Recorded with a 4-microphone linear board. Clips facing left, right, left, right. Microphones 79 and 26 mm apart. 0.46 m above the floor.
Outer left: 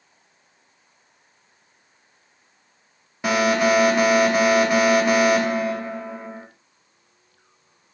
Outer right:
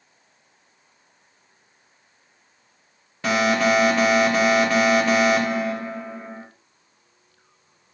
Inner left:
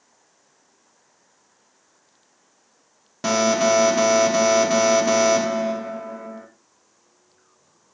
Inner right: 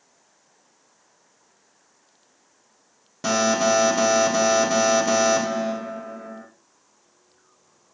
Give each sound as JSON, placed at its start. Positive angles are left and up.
{"t": 3.2, "sound": "an alarm", "side_deg": 15, "distance_m": 1.2}